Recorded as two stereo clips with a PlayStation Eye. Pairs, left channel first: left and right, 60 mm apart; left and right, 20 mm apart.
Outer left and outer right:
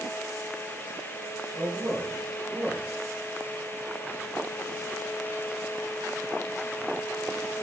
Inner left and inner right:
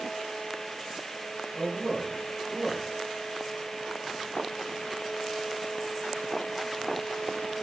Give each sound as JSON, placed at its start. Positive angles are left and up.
{"t": 1.5, "sound": "a man speaking", "side_deg": -60, "distance_m": 4.0}